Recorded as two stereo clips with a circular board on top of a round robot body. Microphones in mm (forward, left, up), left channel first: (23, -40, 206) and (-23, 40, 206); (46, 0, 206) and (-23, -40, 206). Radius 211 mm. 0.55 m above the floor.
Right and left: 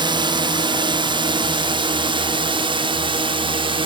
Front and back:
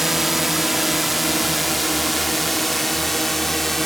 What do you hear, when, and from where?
0.0 s a drone: 120° left; by 3.9 s 115° left